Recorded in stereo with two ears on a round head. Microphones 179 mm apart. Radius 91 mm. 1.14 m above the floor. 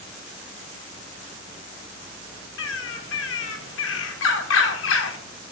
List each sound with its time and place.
2.6 s a bird: 70° left (ahead or behind), 1.6 m